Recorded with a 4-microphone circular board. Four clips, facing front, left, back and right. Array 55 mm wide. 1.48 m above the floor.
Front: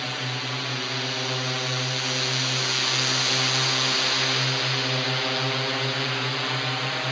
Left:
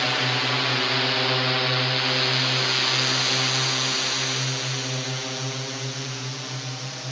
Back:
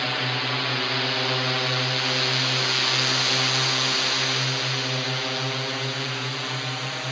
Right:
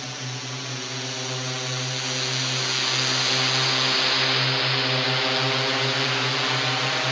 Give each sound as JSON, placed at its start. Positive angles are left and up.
{"t": 0.0, "sound": "a drone", "azimuth_deg": 110}